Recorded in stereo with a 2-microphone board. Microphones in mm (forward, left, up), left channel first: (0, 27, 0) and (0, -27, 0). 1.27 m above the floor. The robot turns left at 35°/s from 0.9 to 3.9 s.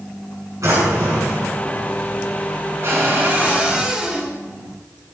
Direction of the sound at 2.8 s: 130° right.